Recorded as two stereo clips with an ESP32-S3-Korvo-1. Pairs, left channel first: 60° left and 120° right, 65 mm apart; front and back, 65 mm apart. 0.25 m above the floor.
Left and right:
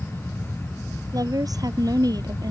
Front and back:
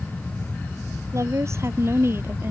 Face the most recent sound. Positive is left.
turn(degrees=-125)